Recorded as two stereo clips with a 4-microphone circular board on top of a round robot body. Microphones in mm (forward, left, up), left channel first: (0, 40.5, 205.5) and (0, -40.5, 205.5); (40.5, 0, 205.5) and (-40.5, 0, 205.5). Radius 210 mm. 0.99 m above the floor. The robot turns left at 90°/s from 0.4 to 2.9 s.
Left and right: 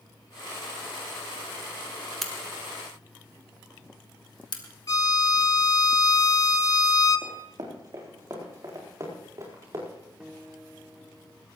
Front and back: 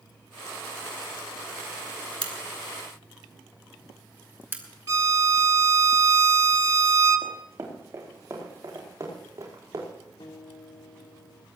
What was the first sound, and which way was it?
A crack, 175° left.